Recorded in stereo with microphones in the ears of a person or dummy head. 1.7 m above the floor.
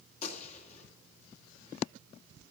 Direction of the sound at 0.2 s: 40° left (ahead or behind).